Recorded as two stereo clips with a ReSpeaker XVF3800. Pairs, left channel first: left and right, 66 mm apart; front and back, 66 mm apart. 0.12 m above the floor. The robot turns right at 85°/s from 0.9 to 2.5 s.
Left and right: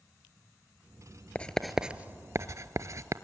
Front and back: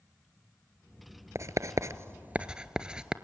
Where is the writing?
155° left, 0.7 m; by 3.1 s 110° right, 0.7 m.